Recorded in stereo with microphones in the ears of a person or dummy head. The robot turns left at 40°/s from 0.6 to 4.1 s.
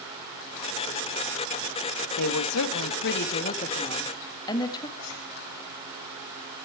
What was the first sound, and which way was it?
A woman speaking, 100° left.